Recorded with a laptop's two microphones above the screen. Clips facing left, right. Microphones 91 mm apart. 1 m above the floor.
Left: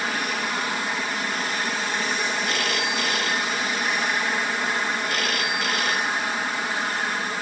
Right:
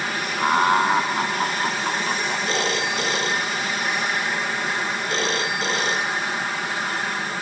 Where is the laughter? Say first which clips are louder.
Right 9 dB; 55° right (ahead or behind).